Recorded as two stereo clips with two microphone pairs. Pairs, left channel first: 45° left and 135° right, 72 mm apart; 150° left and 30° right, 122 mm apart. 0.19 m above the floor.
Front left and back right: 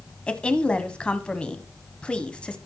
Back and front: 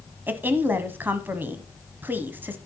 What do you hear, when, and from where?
0.3 s a woman speaking: 5° left, 1.2 m